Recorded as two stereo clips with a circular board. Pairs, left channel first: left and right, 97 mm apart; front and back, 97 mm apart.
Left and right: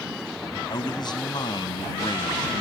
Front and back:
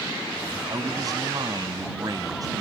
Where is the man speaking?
130° left.